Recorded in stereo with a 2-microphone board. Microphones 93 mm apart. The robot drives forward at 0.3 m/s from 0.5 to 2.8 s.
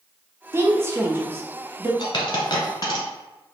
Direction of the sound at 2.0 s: 55° left (ahead or behind).